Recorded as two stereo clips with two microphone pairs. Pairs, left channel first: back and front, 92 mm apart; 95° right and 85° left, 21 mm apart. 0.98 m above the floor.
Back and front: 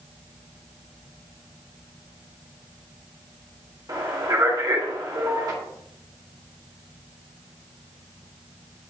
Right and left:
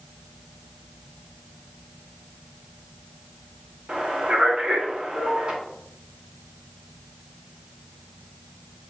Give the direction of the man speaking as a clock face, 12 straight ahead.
11 o'clock.